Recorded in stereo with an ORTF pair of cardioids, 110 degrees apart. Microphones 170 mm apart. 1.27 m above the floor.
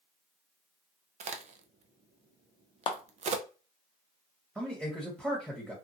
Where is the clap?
30° left, 0.7 m.